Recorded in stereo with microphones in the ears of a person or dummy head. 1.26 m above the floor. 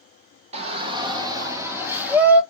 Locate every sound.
0.5 s a shout: 40° right (ahead or behind), 1.6 m; by 2.4 s 10° right (ahead or behind), 2 m